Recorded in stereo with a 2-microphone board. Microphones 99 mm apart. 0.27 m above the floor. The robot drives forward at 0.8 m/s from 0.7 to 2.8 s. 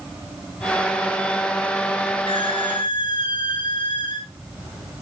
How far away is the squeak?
About 2 m.